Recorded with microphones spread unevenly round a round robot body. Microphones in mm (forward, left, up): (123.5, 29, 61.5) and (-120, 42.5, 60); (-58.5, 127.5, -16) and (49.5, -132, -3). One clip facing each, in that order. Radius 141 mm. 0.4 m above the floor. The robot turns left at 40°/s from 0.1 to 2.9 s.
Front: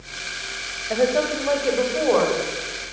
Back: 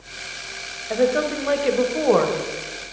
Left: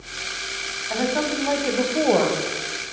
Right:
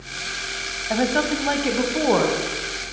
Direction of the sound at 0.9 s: 95° right.